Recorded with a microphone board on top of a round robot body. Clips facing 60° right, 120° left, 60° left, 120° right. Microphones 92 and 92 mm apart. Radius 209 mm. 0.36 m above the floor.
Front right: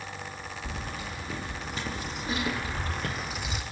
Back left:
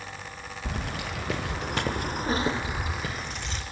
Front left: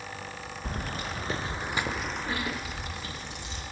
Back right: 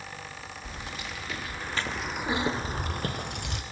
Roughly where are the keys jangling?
Left.